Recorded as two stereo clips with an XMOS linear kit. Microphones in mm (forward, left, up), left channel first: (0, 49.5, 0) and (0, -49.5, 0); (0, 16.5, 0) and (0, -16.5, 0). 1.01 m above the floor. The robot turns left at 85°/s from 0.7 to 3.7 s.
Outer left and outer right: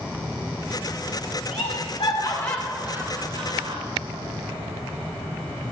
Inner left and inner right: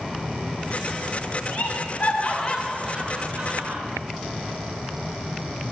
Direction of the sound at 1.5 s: 80° left.